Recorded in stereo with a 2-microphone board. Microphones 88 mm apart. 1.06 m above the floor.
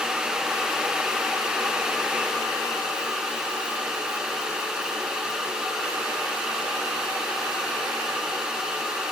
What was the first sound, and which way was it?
Only background noise.